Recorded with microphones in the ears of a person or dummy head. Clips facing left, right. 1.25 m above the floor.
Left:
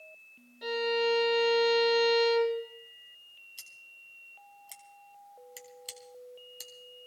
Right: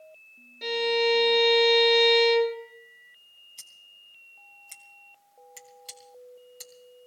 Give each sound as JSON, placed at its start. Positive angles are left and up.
{"t": 0.6, "sound": "a violin", "side_deg": -35, "distance_m": 3.5}
{"t": 3.6, "sound": "scissors", "side_deg": 5, "distance_m": 2.0}